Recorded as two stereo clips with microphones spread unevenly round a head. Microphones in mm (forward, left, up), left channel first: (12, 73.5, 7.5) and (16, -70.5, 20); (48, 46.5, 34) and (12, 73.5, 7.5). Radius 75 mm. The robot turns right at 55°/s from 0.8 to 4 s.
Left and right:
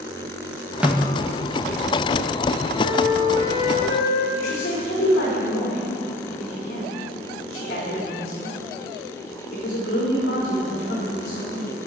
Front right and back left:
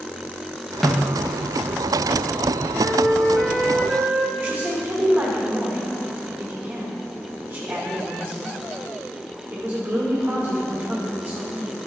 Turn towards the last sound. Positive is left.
turn(degrees=75)